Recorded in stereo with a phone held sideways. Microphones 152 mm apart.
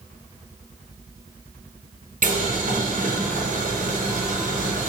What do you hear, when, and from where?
2.2 s boiling: 60° right (ahead or behind), 0.8 m